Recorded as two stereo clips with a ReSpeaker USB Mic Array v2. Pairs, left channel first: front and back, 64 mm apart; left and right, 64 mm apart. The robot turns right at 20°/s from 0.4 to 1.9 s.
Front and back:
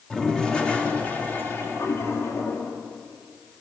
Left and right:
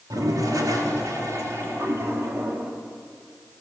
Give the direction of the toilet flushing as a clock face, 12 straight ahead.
3 o'clock.